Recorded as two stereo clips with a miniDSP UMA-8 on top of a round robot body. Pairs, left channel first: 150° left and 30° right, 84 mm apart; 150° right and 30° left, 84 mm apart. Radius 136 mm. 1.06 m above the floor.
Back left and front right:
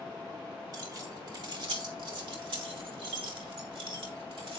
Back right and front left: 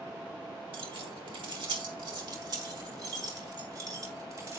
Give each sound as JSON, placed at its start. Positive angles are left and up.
{"t": 0.7, "sound": "keys jangling", "azimuth_deg": 10, "distance_m": 2.5}